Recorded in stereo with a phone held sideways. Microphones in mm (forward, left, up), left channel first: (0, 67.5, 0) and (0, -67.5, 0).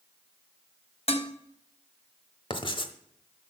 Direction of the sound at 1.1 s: 50° left (ahead or behind).